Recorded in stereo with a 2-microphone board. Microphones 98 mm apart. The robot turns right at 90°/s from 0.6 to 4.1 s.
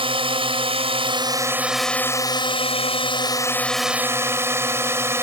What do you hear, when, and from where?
0.0 s a drone: 110° right; by 5.2 s 155° right